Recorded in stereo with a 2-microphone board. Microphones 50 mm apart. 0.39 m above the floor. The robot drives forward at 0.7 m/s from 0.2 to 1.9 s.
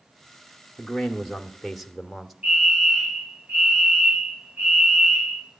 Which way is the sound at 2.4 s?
25° right (ahead or behind).